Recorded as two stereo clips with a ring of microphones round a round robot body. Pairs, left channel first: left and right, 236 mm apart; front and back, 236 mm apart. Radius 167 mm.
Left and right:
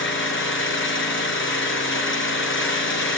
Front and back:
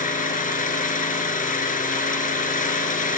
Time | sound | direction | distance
0.0 | an engine running | 55° left | 4.5 m